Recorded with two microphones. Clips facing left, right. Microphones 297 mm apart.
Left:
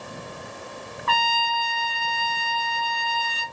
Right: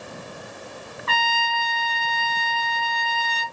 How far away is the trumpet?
About 1.2 m.